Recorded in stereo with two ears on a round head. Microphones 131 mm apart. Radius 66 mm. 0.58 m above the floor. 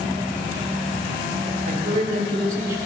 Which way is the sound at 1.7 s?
50° right (ahead or behind).